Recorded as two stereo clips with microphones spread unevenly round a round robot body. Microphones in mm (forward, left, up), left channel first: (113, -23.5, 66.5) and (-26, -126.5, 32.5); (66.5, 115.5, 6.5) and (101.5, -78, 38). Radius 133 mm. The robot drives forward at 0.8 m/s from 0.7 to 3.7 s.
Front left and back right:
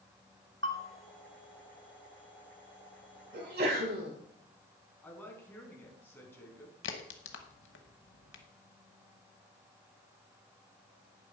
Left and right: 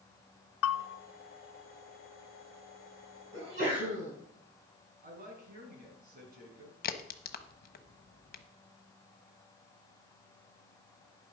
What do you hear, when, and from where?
0.6 s a bell: 110° left, 0.8 m; by 0.9 s 120° left, 0.8 m
3.3 s a sneeze: 130° right, 5.5 m
5.0 s a woman speaking: 40° right, 4.5 m
6.8 s a crack: 60° left, 1.1 m